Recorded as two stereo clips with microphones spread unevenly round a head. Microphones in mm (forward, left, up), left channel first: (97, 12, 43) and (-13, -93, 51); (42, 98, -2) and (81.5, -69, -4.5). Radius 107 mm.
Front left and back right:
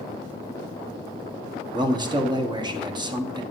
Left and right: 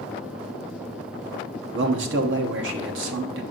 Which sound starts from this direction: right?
A man speaking, at 1.7 s.